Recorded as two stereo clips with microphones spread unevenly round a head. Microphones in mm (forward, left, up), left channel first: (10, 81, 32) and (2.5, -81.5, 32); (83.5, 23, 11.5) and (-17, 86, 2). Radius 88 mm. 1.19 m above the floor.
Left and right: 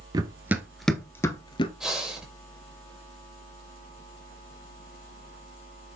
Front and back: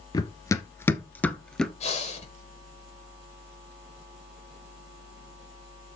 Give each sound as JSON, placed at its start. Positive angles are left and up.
{"t": 0.1, "sound": "running footsteps", "azimuth_deg": -40, "distance_m": 1.3}
{"t": 1.8, "sound": "breathing", "azimuth_deg": -5, "distance_m": 5.0}